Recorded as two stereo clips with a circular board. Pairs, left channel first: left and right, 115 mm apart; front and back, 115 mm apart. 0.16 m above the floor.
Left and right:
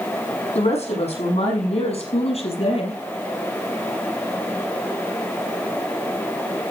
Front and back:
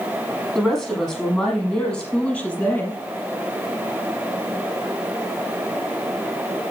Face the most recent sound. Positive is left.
turn(degrees=75)